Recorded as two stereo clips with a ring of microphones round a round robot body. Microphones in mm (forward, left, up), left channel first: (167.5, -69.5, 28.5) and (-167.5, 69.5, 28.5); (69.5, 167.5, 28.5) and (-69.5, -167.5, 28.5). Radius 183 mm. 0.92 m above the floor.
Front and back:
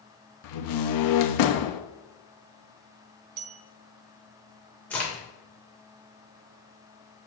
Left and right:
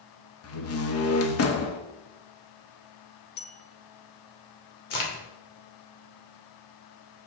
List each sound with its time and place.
0.4 s a door slam: 15° left, 0.9 m
3.4 s a bell: 130° left, 0.5 m
4.9 s a crack: 65° left, 2.5 m